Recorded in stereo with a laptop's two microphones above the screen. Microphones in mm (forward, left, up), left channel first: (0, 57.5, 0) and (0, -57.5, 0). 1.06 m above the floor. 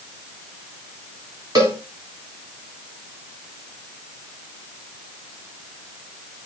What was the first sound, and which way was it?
A cowbell, 35° right (ahead or behind).